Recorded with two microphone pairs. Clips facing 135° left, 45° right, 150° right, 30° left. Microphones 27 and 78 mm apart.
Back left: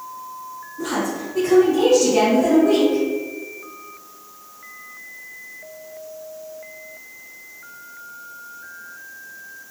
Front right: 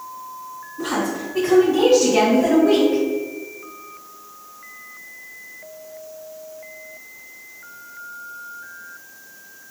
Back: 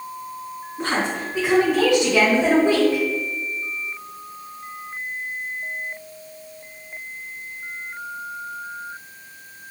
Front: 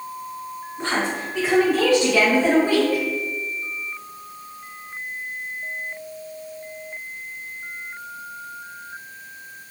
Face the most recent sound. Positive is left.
turn(degrees=-110)